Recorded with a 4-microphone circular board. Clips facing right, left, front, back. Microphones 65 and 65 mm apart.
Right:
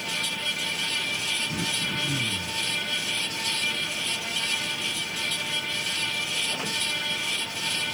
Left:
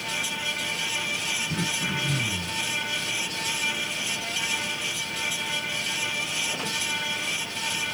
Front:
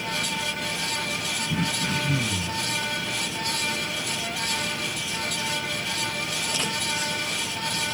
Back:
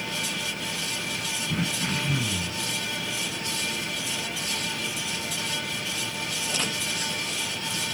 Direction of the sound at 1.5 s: 115° left.